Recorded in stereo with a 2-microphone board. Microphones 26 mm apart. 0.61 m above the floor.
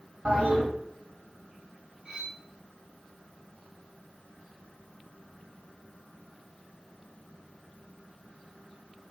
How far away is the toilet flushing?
About 2 m.